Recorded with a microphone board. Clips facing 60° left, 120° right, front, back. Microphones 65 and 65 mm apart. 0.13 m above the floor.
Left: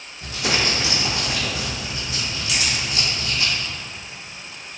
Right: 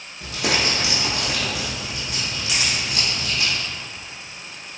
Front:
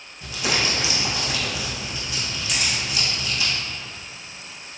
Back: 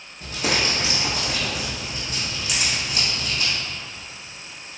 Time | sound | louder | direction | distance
0.2 | crumpling | even, back 1 dB | 135° right | 1.1 m
2.5 | a camera shutter | even, even | 100° right | 0.9 m